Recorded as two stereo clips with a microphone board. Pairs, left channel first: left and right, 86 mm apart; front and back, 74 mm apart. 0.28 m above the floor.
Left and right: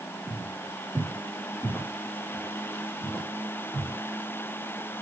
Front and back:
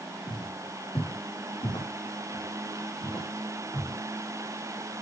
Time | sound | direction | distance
0.3 | footsteps | 15° left | 8.5 m